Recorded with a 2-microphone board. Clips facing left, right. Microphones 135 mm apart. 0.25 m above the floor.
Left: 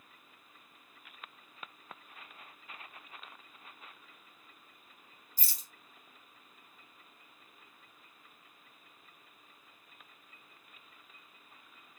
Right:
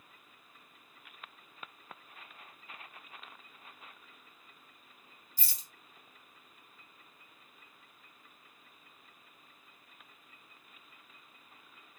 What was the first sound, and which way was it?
A rattle, 45° left (ahead or behind).